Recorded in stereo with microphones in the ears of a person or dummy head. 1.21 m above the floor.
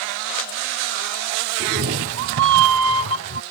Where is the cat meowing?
45° right (ahead or behind); by 3.4 s 70° right (ahead or behind).